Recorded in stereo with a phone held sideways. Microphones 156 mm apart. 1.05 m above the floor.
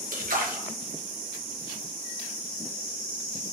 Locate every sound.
0.1 s a splash: 65° right (ahead or behind), 0.7 m